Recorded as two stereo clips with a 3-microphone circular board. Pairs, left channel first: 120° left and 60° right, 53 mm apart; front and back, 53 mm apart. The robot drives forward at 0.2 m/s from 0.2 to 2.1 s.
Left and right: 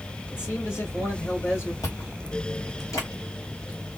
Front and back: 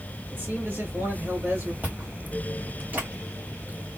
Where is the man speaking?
140° left, 2.5 m; by 1.7 s 145° left, 3 m.